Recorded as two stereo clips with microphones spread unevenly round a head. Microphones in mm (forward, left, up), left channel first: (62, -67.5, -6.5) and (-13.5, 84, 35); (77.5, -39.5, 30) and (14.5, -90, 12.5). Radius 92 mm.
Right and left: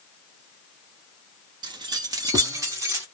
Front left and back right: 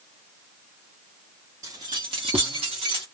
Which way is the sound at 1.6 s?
150° left.